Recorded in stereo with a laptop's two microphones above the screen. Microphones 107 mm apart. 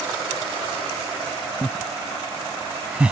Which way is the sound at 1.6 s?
Centre (ahead or behind).